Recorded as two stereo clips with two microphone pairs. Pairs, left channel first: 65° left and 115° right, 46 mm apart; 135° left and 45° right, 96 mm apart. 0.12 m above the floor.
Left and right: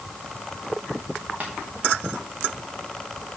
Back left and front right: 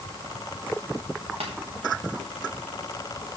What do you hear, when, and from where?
1.4 s tapping: 55° right, 4 m